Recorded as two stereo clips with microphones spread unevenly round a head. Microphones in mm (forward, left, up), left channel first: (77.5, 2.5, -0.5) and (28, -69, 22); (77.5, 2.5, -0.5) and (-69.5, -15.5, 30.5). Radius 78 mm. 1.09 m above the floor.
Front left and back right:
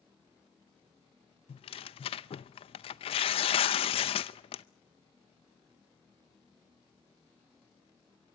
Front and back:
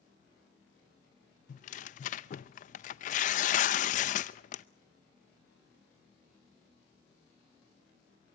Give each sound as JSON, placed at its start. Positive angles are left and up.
{"t": 1.5, "sound": "tearing paper", "azimuth_deg": 50, "distance_m": 0.6}